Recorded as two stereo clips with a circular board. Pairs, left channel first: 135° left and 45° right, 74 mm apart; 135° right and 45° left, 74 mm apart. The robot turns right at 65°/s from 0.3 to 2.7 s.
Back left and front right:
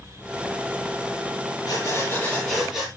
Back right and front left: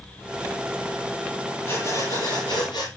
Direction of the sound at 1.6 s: 165° left.